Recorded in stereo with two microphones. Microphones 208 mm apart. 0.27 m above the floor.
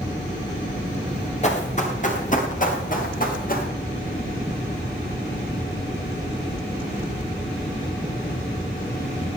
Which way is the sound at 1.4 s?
35° left (ahead or behind).